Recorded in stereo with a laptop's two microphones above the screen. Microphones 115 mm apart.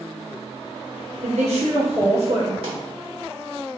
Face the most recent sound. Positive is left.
turn(degrees=-55)  # may be behind; listen again after turning